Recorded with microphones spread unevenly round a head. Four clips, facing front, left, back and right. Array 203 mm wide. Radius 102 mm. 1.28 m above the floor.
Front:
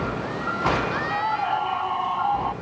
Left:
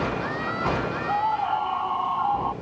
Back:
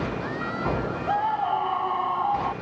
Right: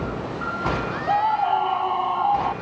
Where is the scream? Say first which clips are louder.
Right 5 dB, back 3 dB; 125° right; by 2.5 s 130° right.